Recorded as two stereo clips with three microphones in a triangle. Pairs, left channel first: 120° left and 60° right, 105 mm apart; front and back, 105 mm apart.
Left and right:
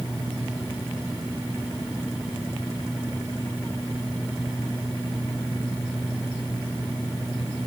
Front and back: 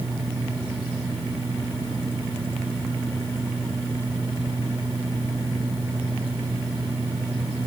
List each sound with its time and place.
Only background noise.